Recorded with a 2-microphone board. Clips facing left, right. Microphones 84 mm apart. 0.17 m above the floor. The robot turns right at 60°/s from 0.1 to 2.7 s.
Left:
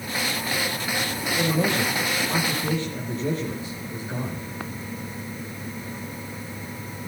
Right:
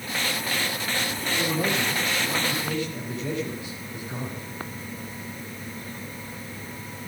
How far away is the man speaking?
About 7 m.